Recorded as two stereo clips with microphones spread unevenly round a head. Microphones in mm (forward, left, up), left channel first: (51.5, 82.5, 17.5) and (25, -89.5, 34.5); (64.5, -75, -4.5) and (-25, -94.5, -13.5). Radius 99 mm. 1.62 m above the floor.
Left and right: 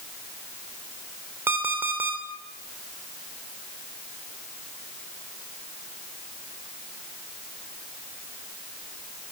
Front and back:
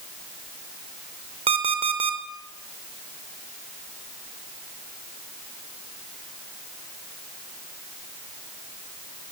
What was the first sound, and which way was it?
An alarm clock, 175° right.